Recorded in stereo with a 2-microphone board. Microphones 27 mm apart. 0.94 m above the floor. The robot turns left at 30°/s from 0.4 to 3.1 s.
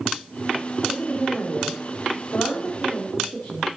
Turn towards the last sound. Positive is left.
turn(degrees=70)